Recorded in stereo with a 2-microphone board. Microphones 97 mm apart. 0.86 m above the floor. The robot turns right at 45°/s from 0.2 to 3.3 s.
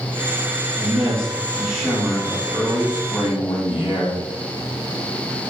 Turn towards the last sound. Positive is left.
turn(degrees=70)